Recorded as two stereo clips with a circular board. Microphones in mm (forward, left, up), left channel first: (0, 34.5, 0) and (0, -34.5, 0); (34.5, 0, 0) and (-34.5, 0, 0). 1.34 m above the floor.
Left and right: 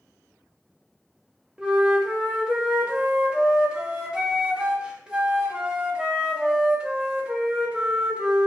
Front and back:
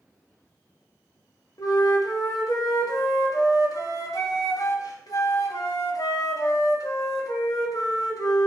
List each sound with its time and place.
1.6 s a flute: 15° right, 1.2 m